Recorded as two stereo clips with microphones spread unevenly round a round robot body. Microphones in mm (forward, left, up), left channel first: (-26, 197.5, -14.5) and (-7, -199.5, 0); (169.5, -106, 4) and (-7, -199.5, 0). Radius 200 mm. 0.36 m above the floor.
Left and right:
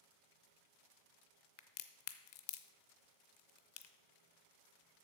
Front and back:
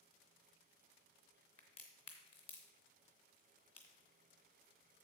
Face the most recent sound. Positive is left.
turn(degrees=75)